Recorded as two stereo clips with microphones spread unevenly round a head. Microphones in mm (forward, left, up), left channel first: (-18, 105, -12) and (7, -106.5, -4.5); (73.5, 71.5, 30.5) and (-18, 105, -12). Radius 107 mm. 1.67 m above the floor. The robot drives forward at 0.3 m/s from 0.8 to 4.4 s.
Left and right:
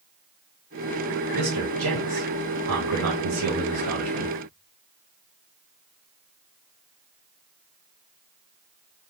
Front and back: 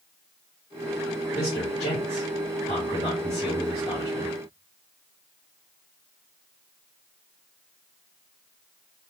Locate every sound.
1.3 s a man speaking: 55° right, 1.0 m; by 4.3 s 115° right, 0.8 m